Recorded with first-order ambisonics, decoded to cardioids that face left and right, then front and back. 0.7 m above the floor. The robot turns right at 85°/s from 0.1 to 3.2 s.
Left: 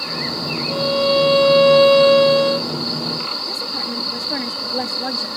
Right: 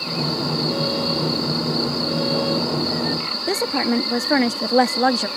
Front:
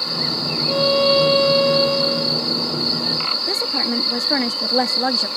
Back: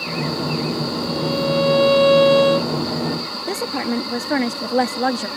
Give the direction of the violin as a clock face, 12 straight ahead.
12 o'clock.